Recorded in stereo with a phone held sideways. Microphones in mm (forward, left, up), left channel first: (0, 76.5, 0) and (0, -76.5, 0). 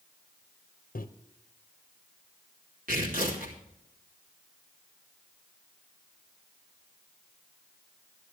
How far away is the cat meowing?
I don't hear a cat meowing.